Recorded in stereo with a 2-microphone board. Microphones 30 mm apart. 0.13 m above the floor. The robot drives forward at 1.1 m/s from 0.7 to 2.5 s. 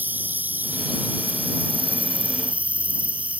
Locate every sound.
0.0 s an insect: 75° right (ahead or behind); by 3.4 s 50° right (ahead or behind)